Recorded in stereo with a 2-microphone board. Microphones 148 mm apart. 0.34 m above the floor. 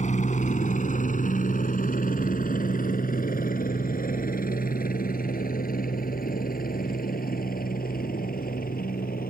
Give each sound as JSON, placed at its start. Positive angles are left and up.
{"t": 0.0, "sound": "a helicopter", "side_deg": 55}